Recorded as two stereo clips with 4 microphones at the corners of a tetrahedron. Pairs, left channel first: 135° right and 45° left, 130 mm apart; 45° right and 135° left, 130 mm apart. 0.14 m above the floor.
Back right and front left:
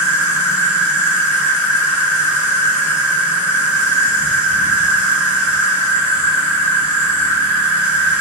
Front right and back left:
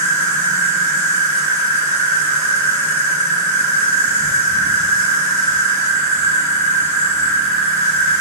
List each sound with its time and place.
0.0 s an insect: 90° right, 2.5 m